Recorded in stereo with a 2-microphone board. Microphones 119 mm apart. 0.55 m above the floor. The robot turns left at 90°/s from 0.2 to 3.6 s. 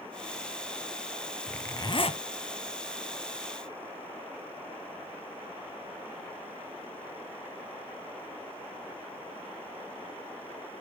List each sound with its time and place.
1.5 s a zipper: 175° left, 0.7 m; by 2.2 s 110° left, 0.7 m